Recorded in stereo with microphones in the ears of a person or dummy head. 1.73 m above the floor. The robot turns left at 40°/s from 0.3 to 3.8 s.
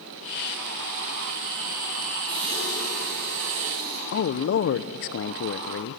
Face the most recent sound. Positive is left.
turn(degrees=50)  # may be behind; listen again after turning